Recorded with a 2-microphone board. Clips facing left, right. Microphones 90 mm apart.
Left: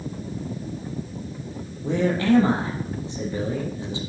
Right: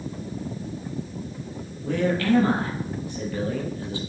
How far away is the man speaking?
About 3 m.